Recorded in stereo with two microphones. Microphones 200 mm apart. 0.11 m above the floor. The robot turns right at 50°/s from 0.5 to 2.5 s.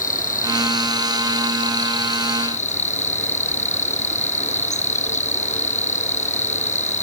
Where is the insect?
45° left; by 7.0 s 145° left.